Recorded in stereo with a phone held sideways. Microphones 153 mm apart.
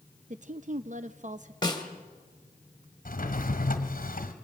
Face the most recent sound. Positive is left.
turn(degrees=70)  # may be behind; listen again after turning